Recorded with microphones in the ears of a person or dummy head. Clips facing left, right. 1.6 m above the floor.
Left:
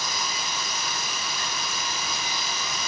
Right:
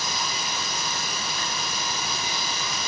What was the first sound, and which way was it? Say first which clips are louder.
Running water: right 1 dB; 50° right (ahead or behind).